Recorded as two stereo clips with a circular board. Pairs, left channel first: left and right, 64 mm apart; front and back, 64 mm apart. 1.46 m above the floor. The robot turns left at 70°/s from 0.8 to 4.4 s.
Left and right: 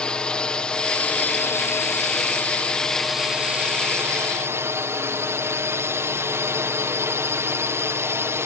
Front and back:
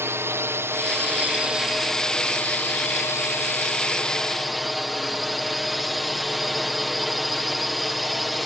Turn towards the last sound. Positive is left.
turn(degrees=-90)